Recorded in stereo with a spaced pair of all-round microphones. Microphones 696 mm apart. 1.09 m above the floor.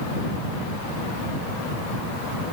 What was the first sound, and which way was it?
Only background noise.